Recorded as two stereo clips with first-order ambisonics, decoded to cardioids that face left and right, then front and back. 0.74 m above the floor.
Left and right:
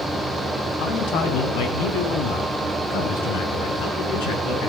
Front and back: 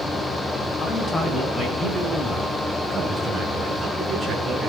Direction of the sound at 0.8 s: 60° left.